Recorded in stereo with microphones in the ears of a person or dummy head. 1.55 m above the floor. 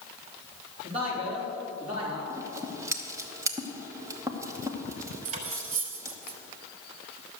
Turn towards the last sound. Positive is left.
turn(degrees=-45)  # may be behind; listen again after turning